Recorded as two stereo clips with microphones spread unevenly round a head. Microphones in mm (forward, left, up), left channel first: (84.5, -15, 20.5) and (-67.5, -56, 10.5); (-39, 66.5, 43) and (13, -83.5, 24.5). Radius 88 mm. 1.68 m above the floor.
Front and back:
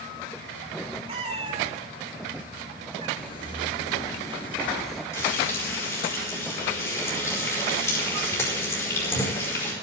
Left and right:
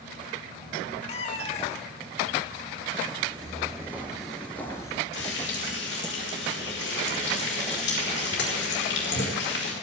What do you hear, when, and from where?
1.1 s a cat meowing: 140° left, 1.7 m
3.2 s footsteps: 10° right, 2 m; by 5.0 s 100° left, 1.8 m
5.1 s frying: 90° left, 5 m